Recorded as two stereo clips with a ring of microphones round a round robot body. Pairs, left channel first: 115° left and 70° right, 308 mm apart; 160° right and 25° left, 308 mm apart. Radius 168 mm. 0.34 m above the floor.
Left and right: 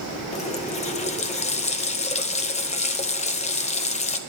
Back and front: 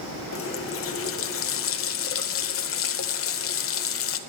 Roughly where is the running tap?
Behind.